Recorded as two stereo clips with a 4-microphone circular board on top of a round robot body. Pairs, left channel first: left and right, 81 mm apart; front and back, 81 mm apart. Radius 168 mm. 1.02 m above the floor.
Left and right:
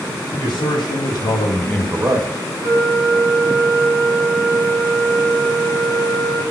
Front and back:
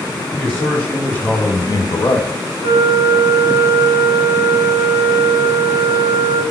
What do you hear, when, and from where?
0.3 s a man speaking: 80° left, 1.9 m; by 2.3 s 55° right, 0.7 m
2.6 s a flute: 40° right, 0.7 m